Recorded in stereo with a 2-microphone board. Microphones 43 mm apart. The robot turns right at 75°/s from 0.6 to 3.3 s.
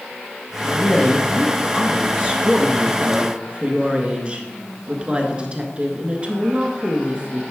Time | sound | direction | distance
0.6 | a woman speaking | 105° left | 1.2 m